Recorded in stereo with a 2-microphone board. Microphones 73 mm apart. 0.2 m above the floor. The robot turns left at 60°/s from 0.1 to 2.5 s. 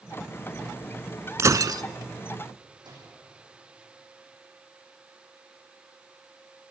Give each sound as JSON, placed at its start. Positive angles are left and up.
{"t": 1.4, "sound": "breaking glass", "side_deg": -40, "distance_m": 0.6}
{"t": 2.8, "sound": "a microwave", "side_deg": -85, "distance_m": 8.5}